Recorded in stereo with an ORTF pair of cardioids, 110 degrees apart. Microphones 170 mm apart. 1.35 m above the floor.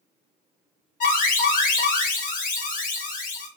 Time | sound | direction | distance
1.0 | an alarm | 55° left | 1.3 m